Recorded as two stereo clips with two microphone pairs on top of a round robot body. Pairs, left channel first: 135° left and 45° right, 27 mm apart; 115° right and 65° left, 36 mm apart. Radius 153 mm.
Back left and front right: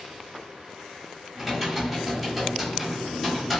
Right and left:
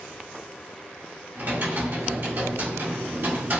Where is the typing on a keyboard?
45° left, 1.9 m.